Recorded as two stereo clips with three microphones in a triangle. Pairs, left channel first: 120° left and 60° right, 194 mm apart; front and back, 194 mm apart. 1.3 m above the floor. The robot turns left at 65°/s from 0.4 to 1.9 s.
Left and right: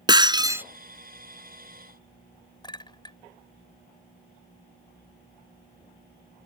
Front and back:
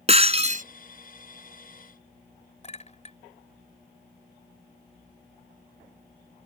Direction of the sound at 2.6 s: 55° left.